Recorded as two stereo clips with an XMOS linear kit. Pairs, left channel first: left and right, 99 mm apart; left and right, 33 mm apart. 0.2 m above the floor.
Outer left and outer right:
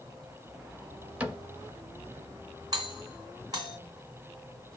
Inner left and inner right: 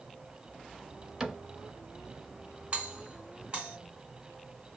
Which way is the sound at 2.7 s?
40° right (ahead or behind).